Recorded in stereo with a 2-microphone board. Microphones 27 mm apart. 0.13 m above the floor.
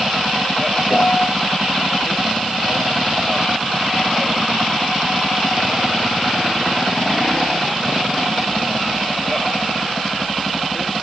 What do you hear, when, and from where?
0.9 s a piano: 25° left (ahead or behind), 1.9 m